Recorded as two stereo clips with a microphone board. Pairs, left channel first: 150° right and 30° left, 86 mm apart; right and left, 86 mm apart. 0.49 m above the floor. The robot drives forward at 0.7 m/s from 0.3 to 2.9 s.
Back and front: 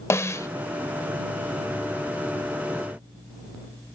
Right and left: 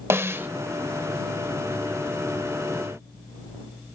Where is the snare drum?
150° left, 0.6 m; by 0.5 s 155° left, 0.7 m.